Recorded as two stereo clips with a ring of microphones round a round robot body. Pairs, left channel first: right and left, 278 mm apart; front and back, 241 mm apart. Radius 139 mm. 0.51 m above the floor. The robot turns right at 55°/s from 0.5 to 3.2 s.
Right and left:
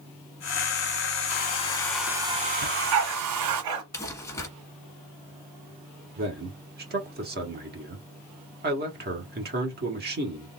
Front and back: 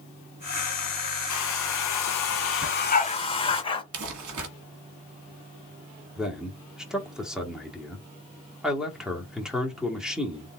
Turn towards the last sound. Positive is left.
turn(degrees=95)